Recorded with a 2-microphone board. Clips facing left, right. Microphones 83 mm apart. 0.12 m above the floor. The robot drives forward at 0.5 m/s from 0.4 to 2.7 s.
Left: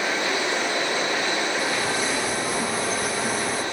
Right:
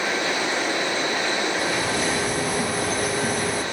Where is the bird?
60° right (ahead or behind), 3.5 m.